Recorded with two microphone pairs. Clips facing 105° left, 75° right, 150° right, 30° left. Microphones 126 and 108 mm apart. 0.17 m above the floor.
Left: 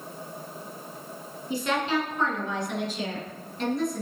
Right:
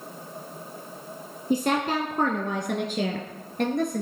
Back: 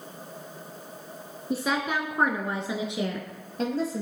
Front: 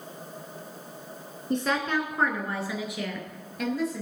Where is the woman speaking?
65° right, 1.7 m; by 4.0 s 95° right, 3 m.